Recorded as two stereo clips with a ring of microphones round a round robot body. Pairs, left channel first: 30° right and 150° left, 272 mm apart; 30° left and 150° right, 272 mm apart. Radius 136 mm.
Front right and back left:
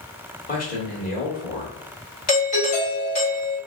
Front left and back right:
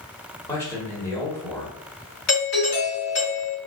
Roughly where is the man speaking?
Ahead right.